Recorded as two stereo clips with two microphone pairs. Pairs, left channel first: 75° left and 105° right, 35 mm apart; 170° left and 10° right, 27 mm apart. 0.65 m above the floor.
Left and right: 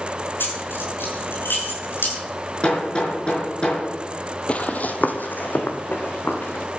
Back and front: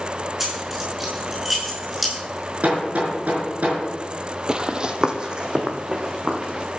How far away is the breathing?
I don't hear breathing.